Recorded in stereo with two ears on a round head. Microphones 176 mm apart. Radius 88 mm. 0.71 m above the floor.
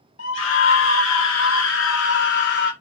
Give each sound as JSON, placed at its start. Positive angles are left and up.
{"t": 0.2, "sound": "a scream", "side_deg": 65, "distance_m": 2.0}